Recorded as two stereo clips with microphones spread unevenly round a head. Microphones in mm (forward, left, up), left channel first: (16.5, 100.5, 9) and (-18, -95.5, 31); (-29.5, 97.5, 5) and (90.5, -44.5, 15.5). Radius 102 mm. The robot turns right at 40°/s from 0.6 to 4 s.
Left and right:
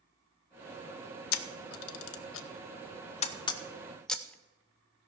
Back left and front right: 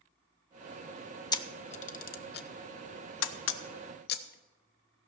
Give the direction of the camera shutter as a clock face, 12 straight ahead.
10 o'clock.